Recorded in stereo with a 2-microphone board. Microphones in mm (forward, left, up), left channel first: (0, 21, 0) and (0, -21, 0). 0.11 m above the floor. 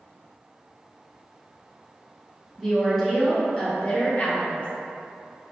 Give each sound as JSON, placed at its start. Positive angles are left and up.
{"t": 2.6, "sound": "a woman speaking", "side_deg": -10, "distance_m": 1.3}